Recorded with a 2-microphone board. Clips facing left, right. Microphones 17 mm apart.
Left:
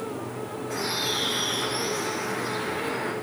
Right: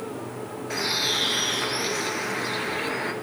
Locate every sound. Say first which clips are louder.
0.7 s a bird: right 3 dB; 50° right (ahead or behind), 1.6 m